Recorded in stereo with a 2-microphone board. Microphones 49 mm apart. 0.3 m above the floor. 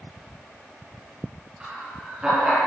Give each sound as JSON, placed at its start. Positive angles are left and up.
{"t": 1.6, "sound": "laughter", "side_deg": -20, "distance_m": 4.0}